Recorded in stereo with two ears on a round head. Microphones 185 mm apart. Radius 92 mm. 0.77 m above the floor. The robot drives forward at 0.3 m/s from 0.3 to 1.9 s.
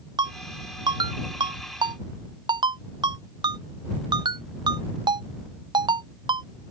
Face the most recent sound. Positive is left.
turn(degrees=-20)  # may be behind; listen again after turning